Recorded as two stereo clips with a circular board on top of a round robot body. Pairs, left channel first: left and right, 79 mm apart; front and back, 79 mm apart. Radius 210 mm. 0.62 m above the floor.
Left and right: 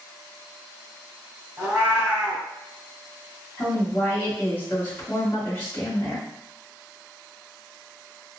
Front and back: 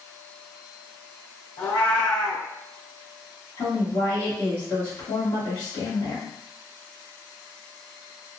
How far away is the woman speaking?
About 1.9 m.